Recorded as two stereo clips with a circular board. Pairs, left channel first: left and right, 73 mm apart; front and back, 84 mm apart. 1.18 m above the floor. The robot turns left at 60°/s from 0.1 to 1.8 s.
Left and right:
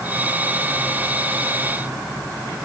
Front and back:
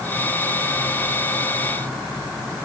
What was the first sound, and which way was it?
Only background noise.